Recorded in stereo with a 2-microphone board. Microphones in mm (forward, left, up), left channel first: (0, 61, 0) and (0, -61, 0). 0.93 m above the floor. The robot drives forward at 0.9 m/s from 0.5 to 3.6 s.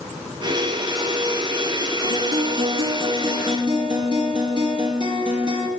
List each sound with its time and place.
2.0 s a guitar: 60° right (ahead or behind), 2.5 m; by 5.7 s 40° right (ahead or behind), 3.5 m